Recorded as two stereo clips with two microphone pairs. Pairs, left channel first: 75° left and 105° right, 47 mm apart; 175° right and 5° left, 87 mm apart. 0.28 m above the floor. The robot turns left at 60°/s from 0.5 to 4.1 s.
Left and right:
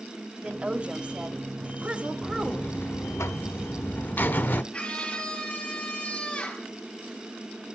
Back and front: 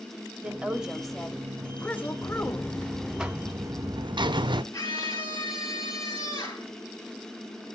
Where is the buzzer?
140° left, 0.5 m; by 4.6 s 30° left, 0.5 m.